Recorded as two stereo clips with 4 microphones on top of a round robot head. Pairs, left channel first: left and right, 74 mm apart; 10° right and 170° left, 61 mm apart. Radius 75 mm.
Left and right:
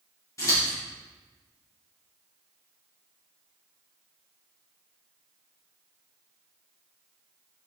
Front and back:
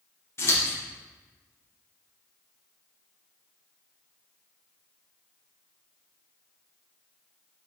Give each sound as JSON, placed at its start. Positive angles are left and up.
{"t": 0.4, "sound": "scissors", "azimuth_deg": 35, "distance_m": 2.5}